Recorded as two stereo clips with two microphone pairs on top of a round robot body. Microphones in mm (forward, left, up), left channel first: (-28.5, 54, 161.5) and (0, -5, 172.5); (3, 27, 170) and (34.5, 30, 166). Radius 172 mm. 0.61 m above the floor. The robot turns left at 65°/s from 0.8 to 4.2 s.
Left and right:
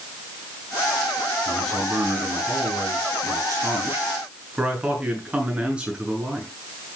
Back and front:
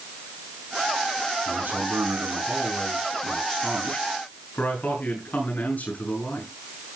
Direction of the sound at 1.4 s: 40° left.